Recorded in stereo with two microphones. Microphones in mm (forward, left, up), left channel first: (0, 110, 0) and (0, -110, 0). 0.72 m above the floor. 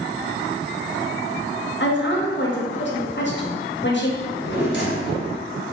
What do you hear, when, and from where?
1.8 s a woman speaking: 55° left (ahead or behind), 0.9 m
4.2 s a drawer: 60° left (ahead or behind), 1.4 m